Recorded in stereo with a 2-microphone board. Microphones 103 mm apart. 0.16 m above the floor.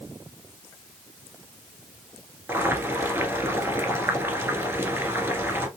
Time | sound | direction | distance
2.5 | boiling | 25° right (ahead or behind) | 1.5 m